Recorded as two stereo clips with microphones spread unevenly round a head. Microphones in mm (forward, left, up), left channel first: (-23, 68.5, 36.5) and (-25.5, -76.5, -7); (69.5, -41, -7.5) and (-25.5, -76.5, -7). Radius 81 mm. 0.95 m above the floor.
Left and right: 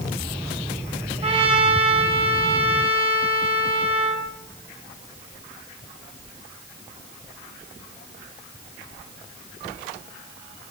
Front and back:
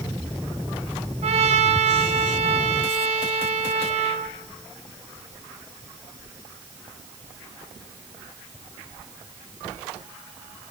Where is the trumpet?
145° right, 4.5 m.